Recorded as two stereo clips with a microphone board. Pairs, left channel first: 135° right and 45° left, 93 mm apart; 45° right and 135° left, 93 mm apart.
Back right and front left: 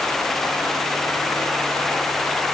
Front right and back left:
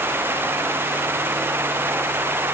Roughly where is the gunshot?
No gunshot in this recording.